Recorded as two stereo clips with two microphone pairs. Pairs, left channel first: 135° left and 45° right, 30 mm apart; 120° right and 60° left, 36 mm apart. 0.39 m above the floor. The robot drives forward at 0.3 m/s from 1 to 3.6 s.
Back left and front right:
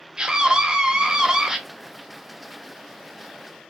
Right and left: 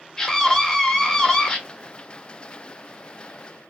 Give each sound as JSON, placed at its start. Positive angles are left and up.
{"t": 0.2, "sound": "a scream", "azimuth_deg": -65, "distance_m": 0.9}